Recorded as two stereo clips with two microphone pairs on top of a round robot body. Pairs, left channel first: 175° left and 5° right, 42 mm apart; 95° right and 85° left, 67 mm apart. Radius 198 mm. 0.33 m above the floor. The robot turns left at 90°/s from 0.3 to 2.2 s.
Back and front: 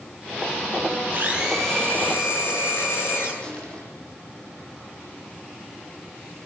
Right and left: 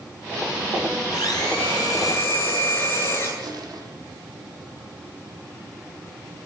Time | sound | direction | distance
1.1 | a blender | 55° right | 9 m
3.4 | crushing | 105° left | 9 m